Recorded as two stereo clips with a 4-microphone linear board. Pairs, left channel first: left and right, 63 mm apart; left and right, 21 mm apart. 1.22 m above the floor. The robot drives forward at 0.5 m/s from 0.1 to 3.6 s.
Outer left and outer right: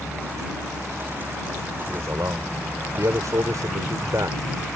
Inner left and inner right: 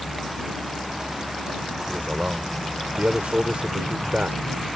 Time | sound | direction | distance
1.9 | a man speaking | 55° right (ahead or behind) | ?